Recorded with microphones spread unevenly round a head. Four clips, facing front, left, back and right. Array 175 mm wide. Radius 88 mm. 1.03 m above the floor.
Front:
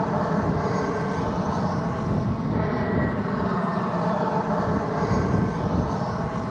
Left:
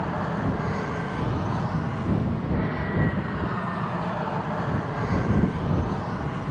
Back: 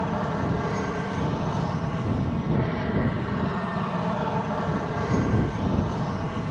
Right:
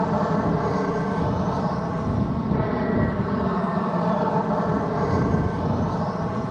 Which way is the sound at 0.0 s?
65° right.